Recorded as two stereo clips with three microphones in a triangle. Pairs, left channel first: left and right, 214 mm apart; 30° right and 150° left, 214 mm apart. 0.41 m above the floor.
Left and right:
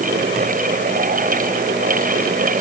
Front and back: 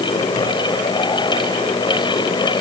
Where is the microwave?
No microwave in this recording.